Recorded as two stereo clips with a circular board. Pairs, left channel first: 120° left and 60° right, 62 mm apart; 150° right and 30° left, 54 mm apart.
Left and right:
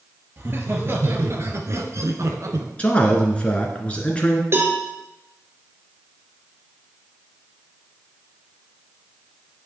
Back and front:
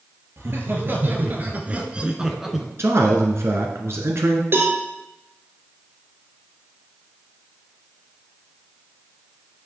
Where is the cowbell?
15° right, 2.5 m.